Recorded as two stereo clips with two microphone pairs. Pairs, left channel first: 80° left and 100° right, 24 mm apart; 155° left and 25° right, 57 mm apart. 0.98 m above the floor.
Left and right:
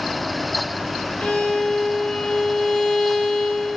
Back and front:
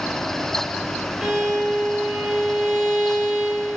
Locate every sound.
1.2 s a violin: 50° left, 2.0 m